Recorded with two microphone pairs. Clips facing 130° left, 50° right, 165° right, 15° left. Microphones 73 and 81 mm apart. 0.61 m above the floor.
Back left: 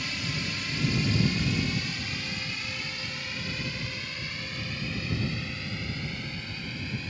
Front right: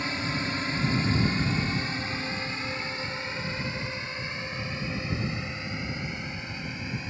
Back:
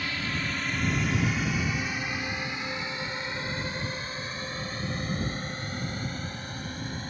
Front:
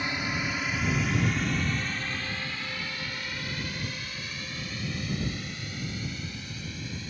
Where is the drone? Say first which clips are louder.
Front right 4 dB, front 1 dB; 40° right; by 7.1 s 125° right.